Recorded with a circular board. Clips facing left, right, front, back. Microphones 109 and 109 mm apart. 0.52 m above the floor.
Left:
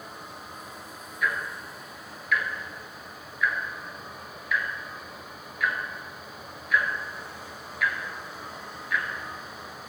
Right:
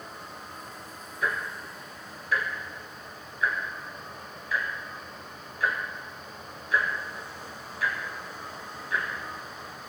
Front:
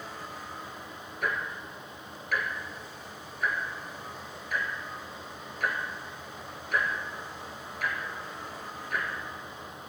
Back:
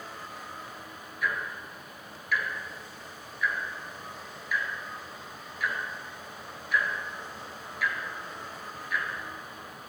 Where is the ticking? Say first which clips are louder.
Left 1 dB, even; 35° right, 2.0 m.